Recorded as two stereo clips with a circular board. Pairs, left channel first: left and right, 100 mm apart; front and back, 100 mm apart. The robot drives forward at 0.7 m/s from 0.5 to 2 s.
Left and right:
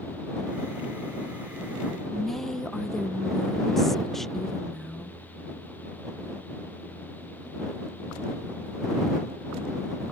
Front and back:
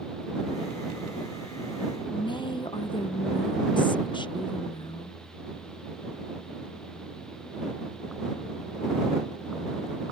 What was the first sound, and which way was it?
A woman speaking, 5° left.